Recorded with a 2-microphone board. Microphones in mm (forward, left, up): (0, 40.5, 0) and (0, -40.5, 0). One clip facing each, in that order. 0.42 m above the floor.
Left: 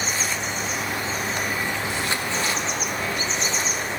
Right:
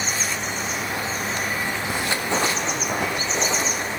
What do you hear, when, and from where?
1.9 s footsteps: 50° right (ahead or behind), 2 m; by 3.9 s 75° right (ahead or behind), 1.7 m